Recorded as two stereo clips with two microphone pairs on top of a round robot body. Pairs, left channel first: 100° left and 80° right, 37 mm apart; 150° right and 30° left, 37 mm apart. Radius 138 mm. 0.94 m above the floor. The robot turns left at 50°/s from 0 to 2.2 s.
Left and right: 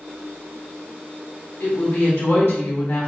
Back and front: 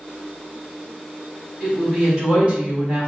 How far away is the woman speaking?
About 1.8 m.